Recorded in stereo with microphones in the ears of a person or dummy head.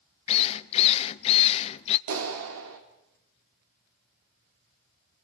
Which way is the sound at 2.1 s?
70° right (ahead or behind).